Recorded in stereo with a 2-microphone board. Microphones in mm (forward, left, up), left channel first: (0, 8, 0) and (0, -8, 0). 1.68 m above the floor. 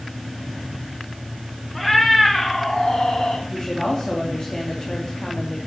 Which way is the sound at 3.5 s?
50° left (ahead or behind).